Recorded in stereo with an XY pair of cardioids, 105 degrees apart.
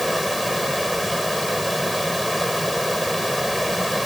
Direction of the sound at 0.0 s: 5° right.